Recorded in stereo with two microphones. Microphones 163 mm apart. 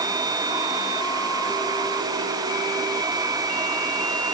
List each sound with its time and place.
Only background noise.